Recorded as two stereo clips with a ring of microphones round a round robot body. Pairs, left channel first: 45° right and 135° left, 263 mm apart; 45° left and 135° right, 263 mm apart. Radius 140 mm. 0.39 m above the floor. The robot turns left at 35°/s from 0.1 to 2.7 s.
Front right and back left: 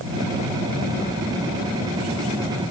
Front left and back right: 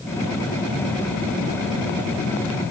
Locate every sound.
Only background noise.